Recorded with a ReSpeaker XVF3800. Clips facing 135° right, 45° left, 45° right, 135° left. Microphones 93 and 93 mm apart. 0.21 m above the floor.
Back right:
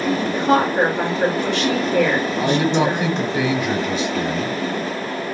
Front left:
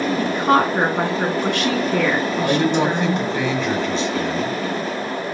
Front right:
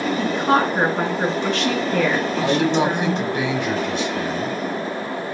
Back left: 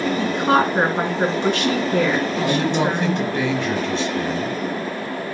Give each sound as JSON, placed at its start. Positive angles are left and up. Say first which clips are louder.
{"t": 0.2, "sound": "a woman speaking", "louder": "front left 2 dB, even", "azimuth_deg": 75, "distance_m": 2.0}
{"t": 2.4, "sound": "a man speaking", "louder": "even, front right 4 dB", "azimuth_deg": -80, "distance_m": 1.0}